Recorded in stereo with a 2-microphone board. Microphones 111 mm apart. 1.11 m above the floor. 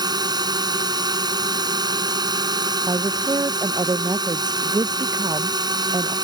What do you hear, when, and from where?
0.0 s a drone: 40° right (ahead or behind)
2.9 s a woman speaking: 40° right (ahead or behind)